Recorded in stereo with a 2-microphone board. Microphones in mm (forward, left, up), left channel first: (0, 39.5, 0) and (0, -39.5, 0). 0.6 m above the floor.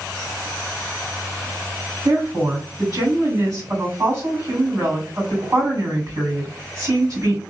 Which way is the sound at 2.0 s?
45° right (ahead or behind).